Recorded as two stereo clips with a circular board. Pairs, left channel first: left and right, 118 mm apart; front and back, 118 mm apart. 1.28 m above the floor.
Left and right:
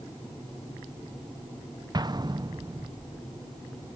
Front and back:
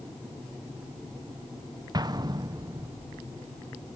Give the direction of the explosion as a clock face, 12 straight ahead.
4 o'clock.